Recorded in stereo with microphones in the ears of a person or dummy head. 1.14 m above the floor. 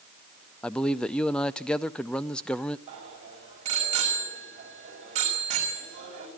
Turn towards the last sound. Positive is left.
turn(degrees=-35)  # may be behind; listen again after turning